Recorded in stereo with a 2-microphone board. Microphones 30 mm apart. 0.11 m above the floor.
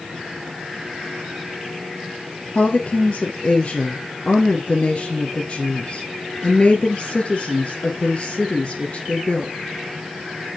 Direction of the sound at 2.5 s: 40° left (ahead or behind).